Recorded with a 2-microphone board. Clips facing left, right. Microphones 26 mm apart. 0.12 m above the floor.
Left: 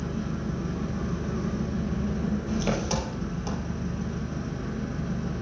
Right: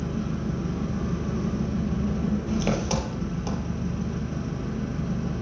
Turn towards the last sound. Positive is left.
turn(degrees=-15)  # may be behind; listen again after turning